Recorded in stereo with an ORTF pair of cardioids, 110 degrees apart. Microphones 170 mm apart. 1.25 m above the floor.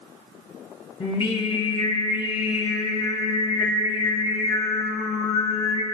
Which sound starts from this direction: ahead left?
Singing, at 1.0 s.